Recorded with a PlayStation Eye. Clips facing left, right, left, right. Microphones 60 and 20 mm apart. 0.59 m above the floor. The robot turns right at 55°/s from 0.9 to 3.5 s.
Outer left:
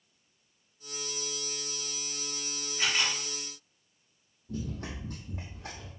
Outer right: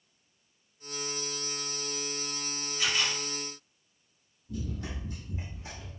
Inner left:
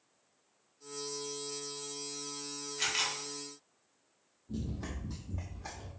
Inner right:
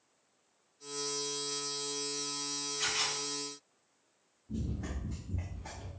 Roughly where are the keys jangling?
I don't hear keys jangling.